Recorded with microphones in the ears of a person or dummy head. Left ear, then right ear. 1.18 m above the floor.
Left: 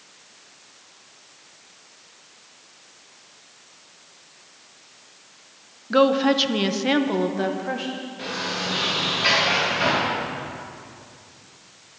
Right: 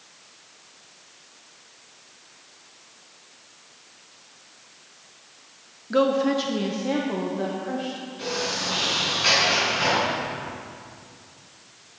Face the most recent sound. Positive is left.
turn(degrees=5)  # may be behind; listen again after turning